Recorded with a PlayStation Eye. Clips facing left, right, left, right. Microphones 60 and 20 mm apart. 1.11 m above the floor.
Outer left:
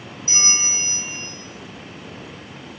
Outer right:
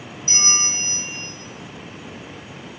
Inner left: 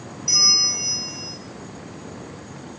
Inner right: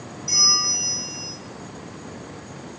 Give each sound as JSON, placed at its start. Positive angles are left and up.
{"t": 0.3, "sound": "a bell", "side_deg": 30, "distance_m": 1.2}